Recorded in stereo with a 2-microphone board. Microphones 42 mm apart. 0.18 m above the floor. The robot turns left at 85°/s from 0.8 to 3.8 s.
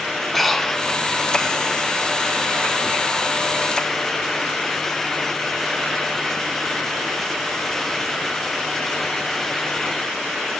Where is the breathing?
5° left (ahead or behind), 0.6 m.